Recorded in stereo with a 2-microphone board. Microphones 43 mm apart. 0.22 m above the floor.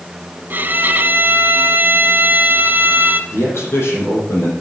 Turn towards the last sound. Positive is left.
turn(degrees=70)  # may be behind; listen again after turning